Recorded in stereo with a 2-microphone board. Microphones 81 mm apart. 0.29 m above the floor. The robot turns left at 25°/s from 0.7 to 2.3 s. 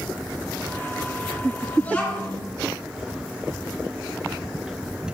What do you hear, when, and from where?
1.8 s a child speaking: 20° left (ahead or behind), 2 m; by 2.4 s 10° left (ahead or behind), 2 m